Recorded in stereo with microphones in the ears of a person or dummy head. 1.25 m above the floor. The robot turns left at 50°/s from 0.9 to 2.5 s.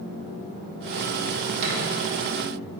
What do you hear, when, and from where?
1.6 s a thud: 45° right (ahead or behind), 1.6 m; by 1.8 s 50° right (ahead or behind), 1.6 m